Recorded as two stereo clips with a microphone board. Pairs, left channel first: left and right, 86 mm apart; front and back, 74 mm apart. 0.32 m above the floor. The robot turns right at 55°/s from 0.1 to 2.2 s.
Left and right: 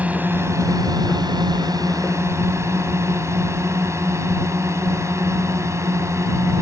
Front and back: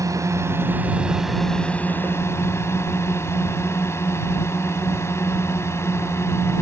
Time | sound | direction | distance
0.0 | a drone | 160° right | ?